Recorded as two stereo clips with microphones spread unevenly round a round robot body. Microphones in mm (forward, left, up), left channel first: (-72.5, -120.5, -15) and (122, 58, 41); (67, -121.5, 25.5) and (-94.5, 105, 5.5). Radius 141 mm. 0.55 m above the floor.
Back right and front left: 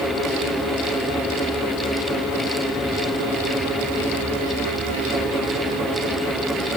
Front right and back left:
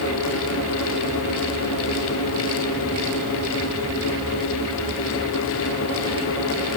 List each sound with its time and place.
Only background noise.